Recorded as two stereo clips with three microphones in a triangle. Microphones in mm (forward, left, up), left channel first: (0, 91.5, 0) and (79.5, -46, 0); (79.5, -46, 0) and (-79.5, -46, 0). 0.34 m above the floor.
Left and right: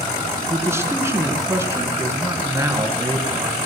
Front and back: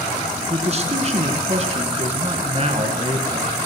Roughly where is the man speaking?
Behind right.